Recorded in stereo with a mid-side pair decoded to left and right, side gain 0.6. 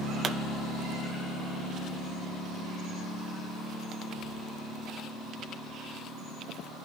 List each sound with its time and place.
0.2 s a pop: 30° right, 1.2 m